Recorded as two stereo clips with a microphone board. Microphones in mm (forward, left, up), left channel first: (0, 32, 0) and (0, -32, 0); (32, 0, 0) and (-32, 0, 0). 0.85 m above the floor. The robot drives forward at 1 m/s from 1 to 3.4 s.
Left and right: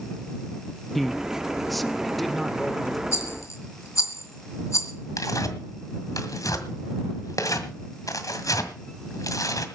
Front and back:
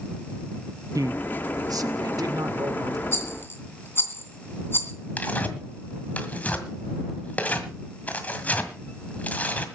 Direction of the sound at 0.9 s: Straight behind.